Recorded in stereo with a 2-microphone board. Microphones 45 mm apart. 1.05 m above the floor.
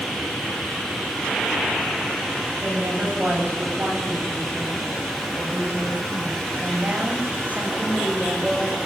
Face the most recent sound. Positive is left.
turn(degrees=-30)  # may be behind; listen again after turning